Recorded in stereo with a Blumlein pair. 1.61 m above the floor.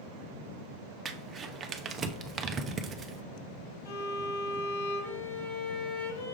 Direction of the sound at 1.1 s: 20° right.